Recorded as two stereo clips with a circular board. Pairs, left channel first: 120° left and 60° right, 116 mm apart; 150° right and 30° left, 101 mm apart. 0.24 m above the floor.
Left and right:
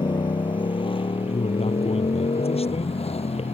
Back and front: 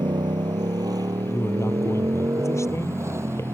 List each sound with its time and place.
0.0 s a motorcycle: 70° left; by 3.5 s 95° left
1.3 s a man speaking: 150° left